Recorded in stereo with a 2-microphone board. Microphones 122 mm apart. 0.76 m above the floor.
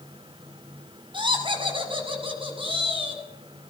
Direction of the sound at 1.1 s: 45° right (ahead or behind).